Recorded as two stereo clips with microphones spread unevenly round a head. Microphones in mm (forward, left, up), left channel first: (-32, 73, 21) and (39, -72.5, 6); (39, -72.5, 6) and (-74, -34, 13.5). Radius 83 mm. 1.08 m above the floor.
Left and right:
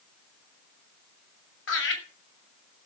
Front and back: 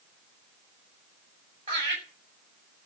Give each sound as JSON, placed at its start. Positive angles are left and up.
{"t": 1.7, "sound": "laughter", "azimuth_deg": 100, "distance_m": 6.5}